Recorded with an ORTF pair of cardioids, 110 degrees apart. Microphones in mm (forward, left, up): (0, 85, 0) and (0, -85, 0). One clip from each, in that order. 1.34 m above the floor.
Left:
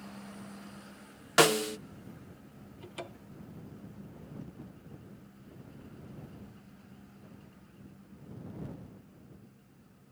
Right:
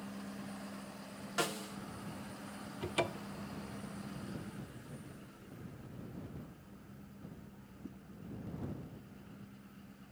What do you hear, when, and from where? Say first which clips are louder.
1.4 s a snare drum: left 13 dB; 65° left
2.8 s a cupboard door: right 9 dB; 45° right